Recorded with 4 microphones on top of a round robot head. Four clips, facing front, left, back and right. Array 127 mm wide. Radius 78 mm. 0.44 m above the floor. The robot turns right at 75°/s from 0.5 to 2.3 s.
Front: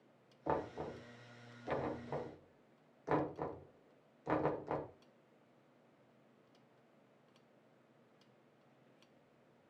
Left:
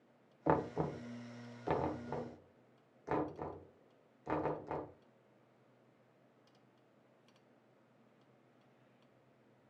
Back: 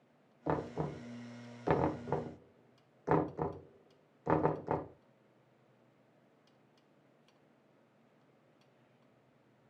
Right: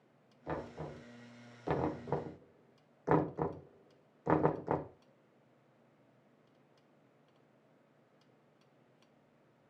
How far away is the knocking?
About 1.1 m.